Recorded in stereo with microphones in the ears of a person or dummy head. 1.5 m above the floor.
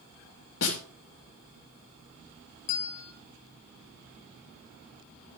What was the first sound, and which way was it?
A snare drum, 70° left (ahead or behind).